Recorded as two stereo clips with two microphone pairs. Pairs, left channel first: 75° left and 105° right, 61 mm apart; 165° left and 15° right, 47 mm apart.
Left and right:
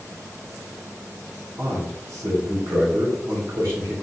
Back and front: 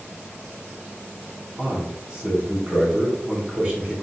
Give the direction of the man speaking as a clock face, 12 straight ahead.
3 o'clock.